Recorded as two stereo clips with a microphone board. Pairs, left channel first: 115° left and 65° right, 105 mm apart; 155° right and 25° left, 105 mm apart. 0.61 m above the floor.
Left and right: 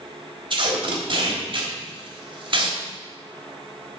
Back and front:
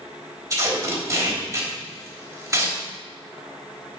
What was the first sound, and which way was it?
Tape being pulled, 35° right.